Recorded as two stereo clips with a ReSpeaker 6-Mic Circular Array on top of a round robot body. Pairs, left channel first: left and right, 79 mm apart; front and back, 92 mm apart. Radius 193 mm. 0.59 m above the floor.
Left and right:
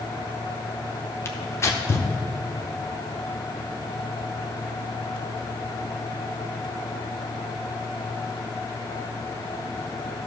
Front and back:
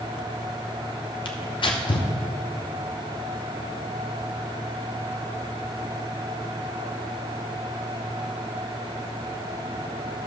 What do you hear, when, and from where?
1.2 s tearing paper: 35° left, 0.7 m